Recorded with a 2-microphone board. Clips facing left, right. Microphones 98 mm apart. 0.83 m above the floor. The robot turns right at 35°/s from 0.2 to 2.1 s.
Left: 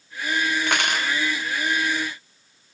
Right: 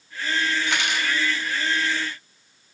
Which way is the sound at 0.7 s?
60° left (ahead or behind).